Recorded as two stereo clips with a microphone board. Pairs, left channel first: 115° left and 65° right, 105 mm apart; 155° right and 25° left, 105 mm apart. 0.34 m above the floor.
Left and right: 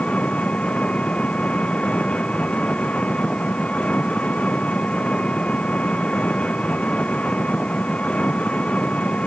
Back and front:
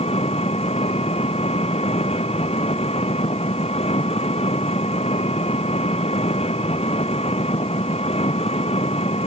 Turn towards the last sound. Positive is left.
turn(degrees=-170)